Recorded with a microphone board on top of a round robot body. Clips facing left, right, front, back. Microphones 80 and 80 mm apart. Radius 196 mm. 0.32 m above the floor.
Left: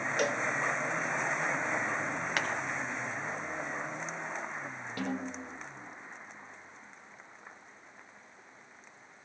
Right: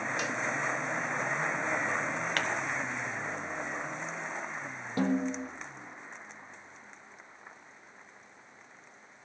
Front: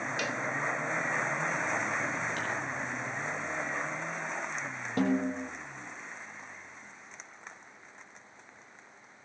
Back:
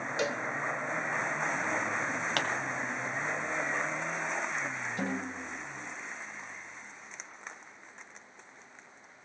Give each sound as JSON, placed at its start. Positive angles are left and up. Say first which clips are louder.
{"t": 0.2, "sound": "a cowbell", "louder": "left 3 dB, back 5 dB", "azimuth_deg": 120, "distance_m": 1.9}
{"t": 2.4, "sound": "a pop", "louder": "even, back 3 dB", "azimuth_deg": 175, "distance_m": 1.7}
{"t": 5.0, "sound": "a snare drum", "louder": "right 8 dB, front 10 dB", "azimuth_deg": -25, "distance_m": 8.0}